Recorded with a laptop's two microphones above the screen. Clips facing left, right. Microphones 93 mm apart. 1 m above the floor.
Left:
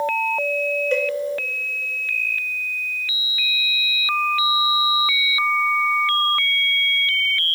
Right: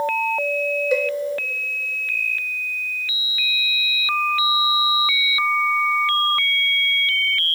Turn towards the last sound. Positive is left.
turn(degrees=-10)  # may be behind; listen again after turning